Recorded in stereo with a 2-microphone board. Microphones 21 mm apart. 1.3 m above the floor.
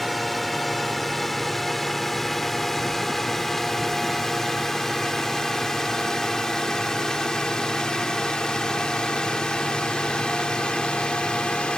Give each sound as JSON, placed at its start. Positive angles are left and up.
{"t": 0.0, "sound": "a drone", "side_deg": 0}